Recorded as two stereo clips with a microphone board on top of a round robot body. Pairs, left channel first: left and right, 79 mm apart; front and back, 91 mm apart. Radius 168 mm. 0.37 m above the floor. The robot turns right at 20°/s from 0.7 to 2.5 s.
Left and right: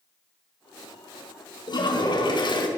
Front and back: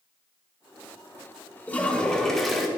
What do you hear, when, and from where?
1.7 s a toilet flushing: 70° left, 2 m; by 2.7 s 90° left, 2 m